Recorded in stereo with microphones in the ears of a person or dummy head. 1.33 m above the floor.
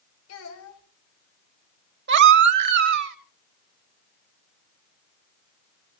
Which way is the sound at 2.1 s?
55° right (ahead or behind).